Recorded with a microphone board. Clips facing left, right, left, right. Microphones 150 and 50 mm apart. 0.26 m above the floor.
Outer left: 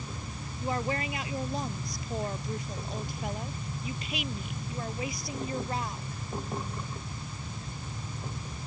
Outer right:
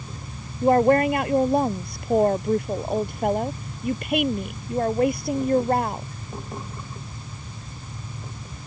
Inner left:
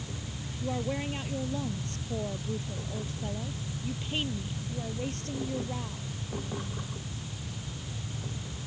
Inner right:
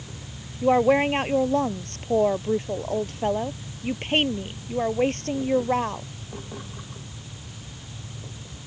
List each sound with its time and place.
0.6 s a woman speaking: 60° right (ahead or behind)